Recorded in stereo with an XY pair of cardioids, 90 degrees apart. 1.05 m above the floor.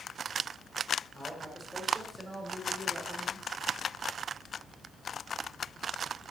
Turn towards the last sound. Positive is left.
turn(degrees=-35)